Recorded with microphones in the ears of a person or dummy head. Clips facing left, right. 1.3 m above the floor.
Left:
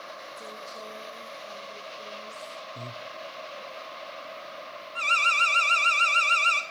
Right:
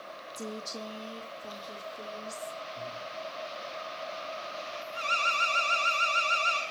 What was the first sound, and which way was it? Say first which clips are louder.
A woman speaking: right 7 dB; 85° right.